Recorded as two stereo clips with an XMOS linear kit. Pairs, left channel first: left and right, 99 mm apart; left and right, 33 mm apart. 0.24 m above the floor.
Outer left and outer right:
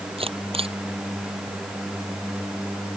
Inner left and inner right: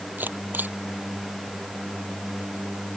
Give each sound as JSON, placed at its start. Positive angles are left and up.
{"t": 0.2, "sound": "a camera shutter", "side_deg": -70}